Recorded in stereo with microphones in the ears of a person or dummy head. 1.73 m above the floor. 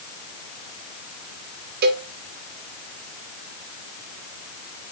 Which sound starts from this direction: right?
A cowbell, at 1.8 s.